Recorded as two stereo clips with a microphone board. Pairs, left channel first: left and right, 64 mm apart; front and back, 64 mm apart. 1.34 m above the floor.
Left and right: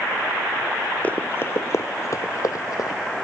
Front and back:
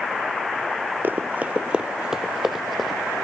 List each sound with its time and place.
1.0 s running footsteps: 145° left; by 3.0 s 90° left